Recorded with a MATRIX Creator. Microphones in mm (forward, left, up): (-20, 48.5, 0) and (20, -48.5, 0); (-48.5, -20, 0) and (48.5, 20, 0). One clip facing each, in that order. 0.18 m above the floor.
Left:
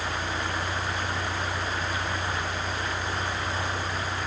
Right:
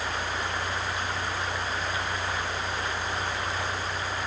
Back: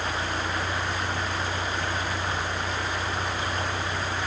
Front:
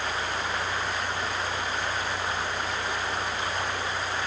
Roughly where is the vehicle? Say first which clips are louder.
Even, back 1 dB; behind.